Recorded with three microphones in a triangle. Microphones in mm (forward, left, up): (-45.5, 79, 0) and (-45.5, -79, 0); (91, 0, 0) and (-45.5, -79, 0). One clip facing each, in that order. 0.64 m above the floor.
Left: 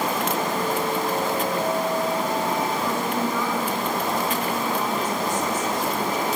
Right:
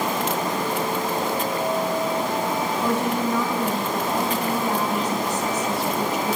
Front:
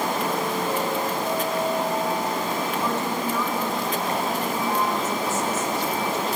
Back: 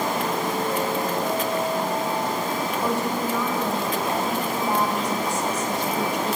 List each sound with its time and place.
2.8 s a woman speaking: 75° right, 4 m